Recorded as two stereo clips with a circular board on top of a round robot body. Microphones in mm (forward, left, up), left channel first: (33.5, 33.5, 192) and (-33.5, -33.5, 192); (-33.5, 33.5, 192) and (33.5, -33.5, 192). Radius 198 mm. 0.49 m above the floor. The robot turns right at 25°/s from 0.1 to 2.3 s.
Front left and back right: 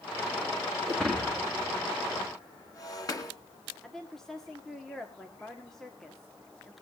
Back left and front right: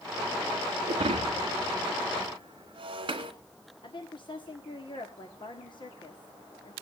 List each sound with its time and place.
0.9 s breaking glass: 45° right, 2.0 m; by 3.3 s 10° right, 2.0 m
3.8 s a woman speaking: 130° left, 2.0 m